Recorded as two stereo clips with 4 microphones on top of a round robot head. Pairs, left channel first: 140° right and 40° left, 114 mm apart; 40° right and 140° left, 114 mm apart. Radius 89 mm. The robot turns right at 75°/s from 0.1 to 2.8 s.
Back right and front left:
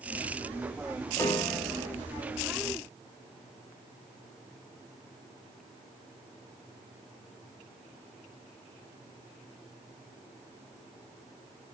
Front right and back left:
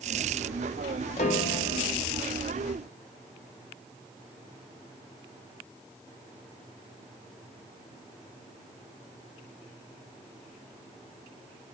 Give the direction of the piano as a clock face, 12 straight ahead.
3 o'clock.